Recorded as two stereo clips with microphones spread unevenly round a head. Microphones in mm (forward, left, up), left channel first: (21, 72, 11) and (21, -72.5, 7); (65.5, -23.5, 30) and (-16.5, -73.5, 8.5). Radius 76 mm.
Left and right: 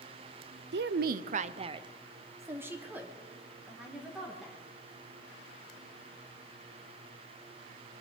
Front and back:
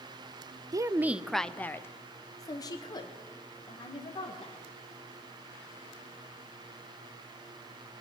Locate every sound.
0.7 s a woman speaking: 95° right, 0.6 m; by 4.6 s straight ahead, 2.5 m